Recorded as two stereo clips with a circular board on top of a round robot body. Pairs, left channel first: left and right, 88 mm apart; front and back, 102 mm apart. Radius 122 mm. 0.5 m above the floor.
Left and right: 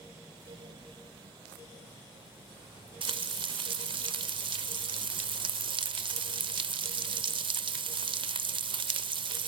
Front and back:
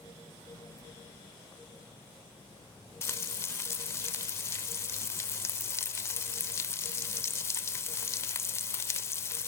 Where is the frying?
65° right, 1.0 m.